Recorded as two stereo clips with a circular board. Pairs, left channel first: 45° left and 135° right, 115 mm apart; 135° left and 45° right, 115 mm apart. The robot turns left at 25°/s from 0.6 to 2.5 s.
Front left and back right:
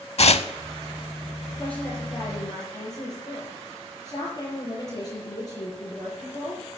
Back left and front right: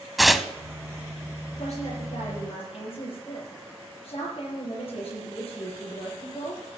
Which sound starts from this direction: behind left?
A woman speaking, at 1.5 s.